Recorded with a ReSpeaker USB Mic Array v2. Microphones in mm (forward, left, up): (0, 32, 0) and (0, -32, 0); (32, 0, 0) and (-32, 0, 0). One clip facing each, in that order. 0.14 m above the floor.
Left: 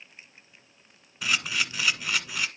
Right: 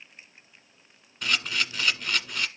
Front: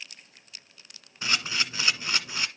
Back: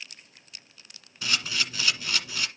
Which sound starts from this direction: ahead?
A camera shutter, at 1.2 s.